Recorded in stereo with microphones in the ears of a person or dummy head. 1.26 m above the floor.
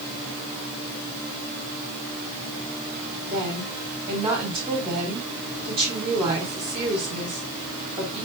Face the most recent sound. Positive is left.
turn(degrees=-30)  # may be behind; listen again after turning